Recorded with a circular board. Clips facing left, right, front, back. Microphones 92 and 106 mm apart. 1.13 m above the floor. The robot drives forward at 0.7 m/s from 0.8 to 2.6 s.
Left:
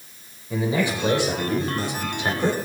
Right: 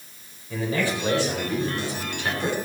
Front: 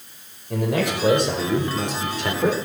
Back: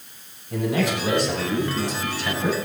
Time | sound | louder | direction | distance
0.5 | a man speaking | left 2 dB, even | 20° left | 5 m